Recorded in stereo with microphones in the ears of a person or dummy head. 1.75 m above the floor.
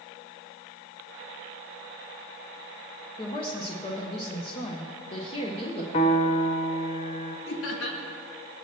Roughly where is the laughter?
Left.